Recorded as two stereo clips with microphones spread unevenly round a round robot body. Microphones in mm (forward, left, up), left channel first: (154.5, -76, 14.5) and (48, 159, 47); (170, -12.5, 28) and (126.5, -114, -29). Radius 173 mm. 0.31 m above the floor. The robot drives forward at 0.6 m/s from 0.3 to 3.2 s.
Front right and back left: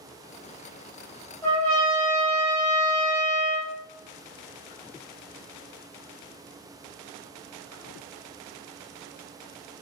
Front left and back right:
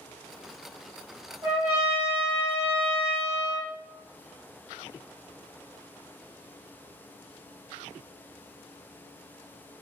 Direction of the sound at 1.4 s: 140° right.